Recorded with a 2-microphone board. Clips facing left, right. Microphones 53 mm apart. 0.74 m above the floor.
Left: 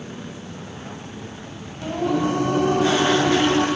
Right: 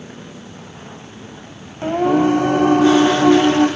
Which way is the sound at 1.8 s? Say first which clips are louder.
Right 7 dB; 40° right (ahead or behind).